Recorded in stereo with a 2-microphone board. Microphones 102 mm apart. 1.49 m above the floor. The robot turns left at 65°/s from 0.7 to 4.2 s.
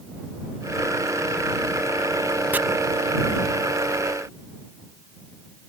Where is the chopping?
20° right (ahead or behind).